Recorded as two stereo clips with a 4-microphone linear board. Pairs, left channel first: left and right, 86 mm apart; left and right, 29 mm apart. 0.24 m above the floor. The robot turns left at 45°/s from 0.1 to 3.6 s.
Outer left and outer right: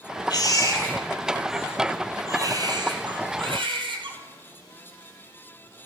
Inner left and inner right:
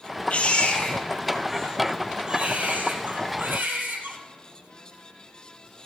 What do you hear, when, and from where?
0.3 s a baby crying: 55° left, 2 m; by 4.2 s 95° right, 2 m